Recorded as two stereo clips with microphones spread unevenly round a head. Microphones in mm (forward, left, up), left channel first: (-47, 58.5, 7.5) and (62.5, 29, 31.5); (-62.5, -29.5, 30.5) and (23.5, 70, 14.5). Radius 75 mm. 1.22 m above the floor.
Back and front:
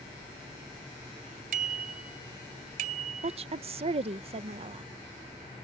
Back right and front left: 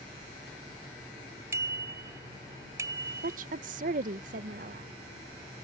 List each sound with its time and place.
1.5 s a bicycle bell: 25° right
3.2 s a woman speaking: 20° left